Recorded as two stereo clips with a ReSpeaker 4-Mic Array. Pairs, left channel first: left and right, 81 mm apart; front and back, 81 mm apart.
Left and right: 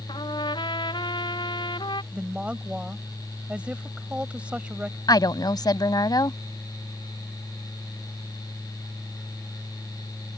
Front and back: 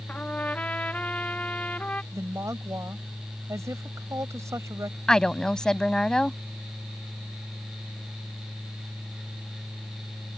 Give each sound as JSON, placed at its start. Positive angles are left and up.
{"t": 0.1, "sound": "a trumpet", "azimuth_deg": 75}
{"t": 2.1, "sound": "a woman speaking", "azimuth_deg": -160}
{"t": 5.1, "sound": "a woman speaking", "azimuth_deg": 80}